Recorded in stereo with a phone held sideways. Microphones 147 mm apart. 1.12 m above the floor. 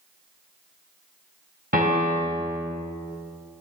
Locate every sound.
1.7 s a piano: 85° right, 3.5 m